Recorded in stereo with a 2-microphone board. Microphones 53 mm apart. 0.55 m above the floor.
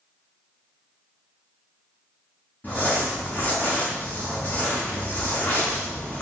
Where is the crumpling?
35° left (ahead or behind), 4 m.